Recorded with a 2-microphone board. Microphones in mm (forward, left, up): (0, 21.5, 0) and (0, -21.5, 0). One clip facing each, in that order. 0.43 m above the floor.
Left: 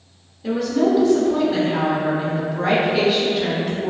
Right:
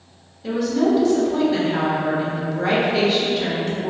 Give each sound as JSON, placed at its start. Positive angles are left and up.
{"t": 0.4, "sound": "a woman speaking", "side_deg": 5, "distance_m": 0.9}